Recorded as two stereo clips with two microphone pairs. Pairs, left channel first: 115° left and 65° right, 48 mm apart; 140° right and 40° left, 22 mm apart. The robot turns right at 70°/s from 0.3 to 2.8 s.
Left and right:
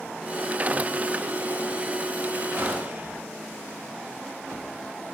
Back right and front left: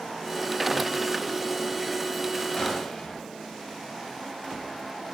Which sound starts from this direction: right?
A gunshot, at 2.6 s.